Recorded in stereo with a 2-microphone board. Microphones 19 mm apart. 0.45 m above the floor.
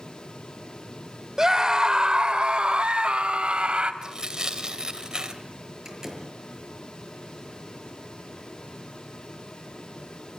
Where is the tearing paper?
40° right (ahead or behind), 2.5 m.